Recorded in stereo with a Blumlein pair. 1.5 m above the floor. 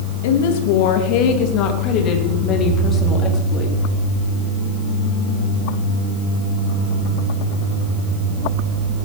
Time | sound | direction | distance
0.2 | a woman speaking | 55° left | 1.9 m